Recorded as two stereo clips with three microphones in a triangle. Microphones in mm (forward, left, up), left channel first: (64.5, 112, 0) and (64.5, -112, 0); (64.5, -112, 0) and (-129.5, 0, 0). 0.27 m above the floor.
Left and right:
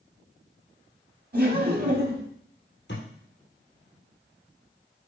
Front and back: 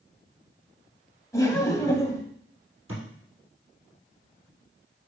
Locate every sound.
1.3 s laughter: 100° right, 1.4 m
2.9 s a thud: 130° left, 3.5 m